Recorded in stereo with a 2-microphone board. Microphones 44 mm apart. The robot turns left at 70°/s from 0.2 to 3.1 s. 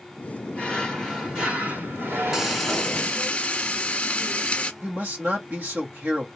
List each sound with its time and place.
0.5 s a drawer: 35° left, 2.5 m; by 3.3 s 145° right, 2.5 m
2.3 s frying: 160° right, 1.3 m; by 4.7 s 145° left, 1.3 m
4.8 s a man speaking: 50° right (ahead or behind), 2.0 m